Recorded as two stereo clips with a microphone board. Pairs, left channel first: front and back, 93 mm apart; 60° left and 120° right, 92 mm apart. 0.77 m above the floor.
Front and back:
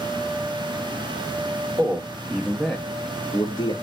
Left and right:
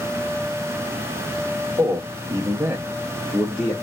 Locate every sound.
1.8 s a man speaking: 130° right, 0.8 m; by 3.7 s 20° right, 0.8 m